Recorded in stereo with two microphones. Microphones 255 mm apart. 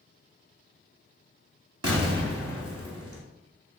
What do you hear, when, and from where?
1.8 s an explosion: 60° right (ahead or behind), 0.7 m